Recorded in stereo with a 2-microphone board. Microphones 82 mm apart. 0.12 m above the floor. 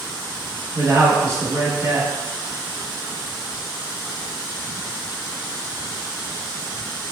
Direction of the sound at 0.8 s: 35° right (ahead or behind).